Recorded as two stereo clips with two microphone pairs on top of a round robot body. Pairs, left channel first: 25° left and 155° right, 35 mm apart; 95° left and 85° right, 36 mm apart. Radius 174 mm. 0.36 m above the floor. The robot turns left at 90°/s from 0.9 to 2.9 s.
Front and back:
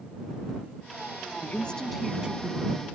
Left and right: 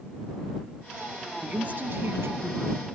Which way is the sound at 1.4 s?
15° right.